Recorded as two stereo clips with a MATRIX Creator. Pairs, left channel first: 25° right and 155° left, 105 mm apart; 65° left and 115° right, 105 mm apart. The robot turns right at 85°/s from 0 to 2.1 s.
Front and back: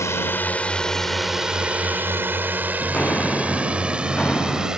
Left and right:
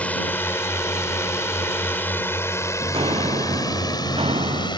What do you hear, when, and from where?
0.0 s a drone: 5° left; by 4.8 s 75° left
2.8 s footsteps: 100° right